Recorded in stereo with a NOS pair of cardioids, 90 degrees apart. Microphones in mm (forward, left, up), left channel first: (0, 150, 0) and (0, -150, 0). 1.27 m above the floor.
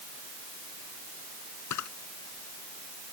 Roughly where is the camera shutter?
Left.